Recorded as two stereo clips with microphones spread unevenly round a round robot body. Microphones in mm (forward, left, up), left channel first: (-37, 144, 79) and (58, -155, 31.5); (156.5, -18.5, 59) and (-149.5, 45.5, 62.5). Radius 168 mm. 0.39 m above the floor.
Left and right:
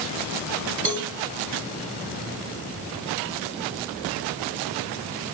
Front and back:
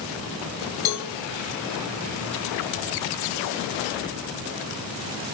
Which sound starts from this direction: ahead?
A cowbell, at 0.8 s.